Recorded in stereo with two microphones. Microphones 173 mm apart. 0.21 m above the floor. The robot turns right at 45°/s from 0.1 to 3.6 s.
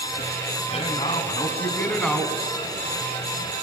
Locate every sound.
0.7 s a man speaking: 115° left, 1.8 m; by 2.3 s 170° right, 1.8 m